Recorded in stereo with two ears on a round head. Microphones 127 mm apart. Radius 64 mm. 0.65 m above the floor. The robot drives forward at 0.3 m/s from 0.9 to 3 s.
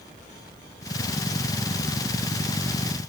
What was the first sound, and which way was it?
Only background noise.